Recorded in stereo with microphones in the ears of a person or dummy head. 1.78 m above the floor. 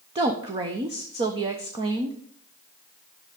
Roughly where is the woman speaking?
Right.